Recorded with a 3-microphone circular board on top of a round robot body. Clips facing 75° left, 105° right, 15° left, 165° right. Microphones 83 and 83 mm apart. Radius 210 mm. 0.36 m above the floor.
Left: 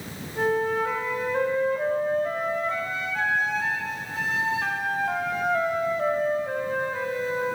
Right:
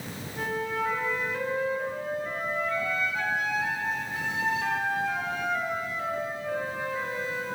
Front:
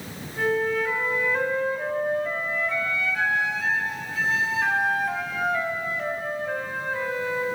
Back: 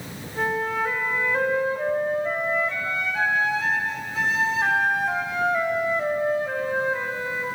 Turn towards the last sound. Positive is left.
turn(degrees=130)